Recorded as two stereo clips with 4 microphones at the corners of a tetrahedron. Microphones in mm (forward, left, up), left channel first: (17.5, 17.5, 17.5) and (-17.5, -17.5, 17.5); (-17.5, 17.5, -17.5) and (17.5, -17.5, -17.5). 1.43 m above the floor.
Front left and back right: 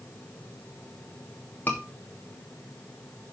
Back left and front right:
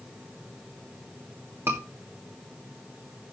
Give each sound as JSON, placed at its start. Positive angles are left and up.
{"t": 1.7, "sound": "a scream", "azimuth_deg": -10, "distance_m": 2.5}